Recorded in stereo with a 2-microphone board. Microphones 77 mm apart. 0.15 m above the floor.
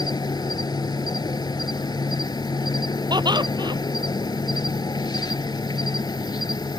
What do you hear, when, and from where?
0.0 s an insect: 65° left (ahead or behind)
3.1 s laughter: 70° right (ahead or behind)